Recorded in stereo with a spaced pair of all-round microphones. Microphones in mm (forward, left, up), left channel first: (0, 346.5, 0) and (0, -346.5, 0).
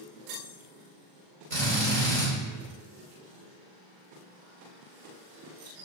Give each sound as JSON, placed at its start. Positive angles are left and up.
{"t": 1.5, "sound": "a drill", "side_deg": -70, "distance_m": 3.0}